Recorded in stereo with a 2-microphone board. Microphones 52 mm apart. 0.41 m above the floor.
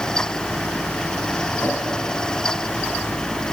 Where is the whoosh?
40° left (ahead or behind), 2.5 m.